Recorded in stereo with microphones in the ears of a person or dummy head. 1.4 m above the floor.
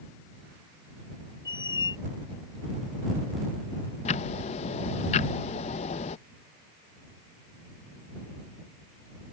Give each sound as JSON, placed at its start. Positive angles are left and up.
{"t": 1.4, "sound": "a squeak", "side_deg": 20}
{"t": 4.0, "sound": "ticking", "side_deg": 40}